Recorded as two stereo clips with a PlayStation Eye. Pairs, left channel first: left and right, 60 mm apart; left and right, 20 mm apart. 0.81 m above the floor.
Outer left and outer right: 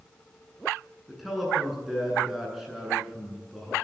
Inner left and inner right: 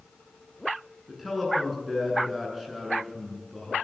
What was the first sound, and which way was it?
A man speaking, 5° right (ahead or behind).